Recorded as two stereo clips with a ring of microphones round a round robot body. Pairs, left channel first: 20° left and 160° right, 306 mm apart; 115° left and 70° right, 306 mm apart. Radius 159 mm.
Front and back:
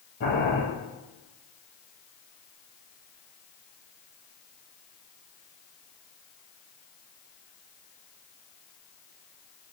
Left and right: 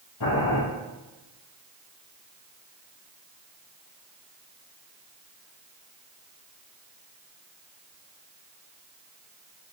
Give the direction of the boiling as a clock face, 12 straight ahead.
9 o'clock.